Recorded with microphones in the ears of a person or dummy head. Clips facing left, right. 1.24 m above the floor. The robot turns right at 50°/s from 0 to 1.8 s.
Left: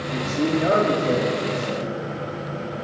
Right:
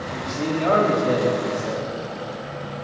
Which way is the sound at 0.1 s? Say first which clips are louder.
Left 4 dB; 130° left.